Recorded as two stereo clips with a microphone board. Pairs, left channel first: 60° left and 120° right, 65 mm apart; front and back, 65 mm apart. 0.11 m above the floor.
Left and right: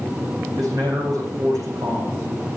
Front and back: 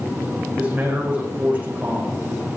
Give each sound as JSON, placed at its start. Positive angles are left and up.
{"t": 0.6, "sound": "a man speaking", "azimuth_deg": -110, "distance_m": 7.0}